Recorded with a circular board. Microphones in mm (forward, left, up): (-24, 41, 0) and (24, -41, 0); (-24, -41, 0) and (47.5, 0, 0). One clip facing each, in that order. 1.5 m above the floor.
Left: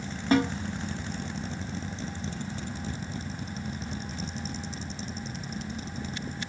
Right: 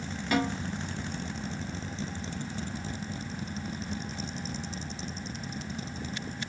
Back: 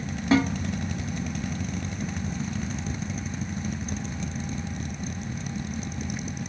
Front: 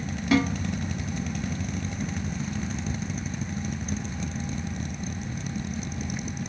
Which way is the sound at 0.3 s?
160° left.